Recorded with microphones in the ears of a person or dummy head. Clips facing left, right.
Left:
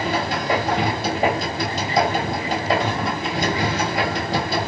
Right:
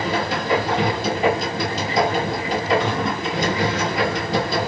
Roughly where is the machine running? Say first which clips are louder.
Even; left.